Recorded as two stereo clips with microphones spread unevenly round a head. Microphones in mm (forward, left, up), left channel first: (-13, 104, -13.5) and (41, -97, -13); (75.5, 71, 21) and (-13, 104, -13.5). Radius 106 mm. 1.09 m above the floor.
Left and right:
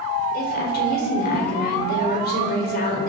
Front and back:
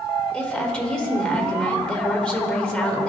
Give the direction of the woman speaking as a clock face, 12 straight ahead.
10 o'clock.